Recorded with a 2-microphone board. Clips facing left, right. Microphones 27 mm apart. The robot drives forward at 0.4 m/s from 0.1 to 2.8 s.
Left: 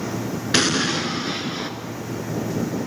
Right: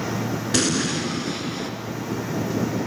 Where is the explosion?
35° left (ahead or behind), 1.3 m; by 1.7 s 30° left (ahead or behind), 1.5 m.